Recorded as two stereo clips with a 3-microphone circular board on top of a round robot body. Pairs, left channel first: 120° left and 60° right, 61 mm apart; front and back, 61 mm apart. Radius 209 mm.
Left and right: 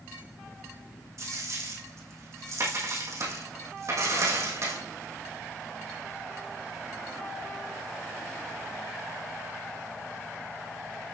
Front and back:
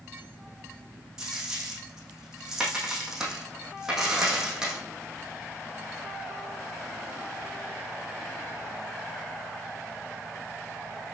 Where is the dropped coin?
100° right, 4.5 m.